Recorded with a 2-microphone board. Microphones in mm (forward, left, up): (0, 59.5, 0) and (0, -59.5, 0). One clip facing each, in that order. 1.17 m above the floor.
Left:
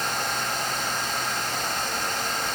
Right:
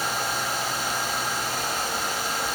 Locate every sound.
Only background noise.